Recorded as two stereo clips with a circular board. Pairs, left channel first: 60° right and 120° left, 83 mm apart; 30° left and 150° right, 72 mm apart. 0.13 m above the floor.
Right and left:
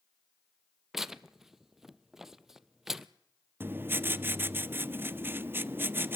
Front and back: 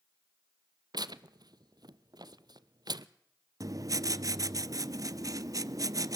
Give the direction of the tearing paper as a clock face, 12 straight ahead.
5 o'clock.